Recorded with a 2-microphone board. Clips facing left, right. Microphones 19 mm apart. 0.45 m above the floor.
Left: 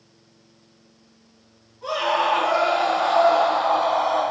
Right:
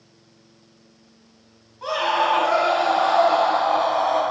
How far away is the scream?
About 3.5 m.